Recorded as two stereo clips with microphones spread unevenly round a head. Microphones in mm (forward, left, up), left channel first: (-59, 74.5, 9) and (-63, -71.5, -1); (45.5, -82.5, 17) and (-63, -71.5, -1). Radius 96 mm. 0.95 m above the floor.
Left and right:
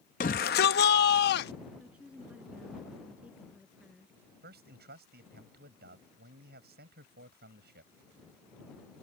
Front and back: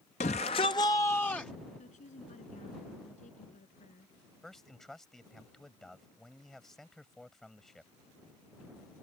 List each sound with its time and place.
0.2 s a shout: 40° left; by 1.5 s 80° left
1.8 s a woman speaking: 5° right
4.4 s a man speaking: 90° right